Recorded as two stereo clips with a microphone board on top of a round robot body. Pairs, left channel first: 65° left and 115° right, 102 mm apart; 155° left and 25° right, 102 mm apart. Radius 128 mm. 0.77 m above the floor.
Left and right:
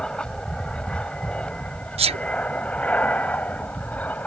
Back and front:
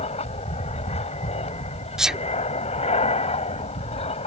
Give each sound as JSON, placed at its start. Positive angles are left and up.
{"t": 0.0, "sound": "an aircraft", "azimuth_deg": 150}
{"t": 2.0, "sound": "a sneeze", "azimuth_deg": -105}